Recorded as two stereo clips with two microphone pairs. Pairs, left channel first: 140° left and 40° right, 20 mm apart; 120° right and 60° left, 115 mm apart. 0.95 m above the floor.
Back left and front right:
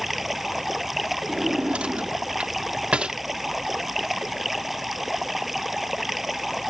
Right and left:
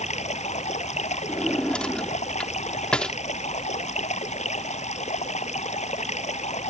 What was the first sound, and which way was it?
Running water, 115° right.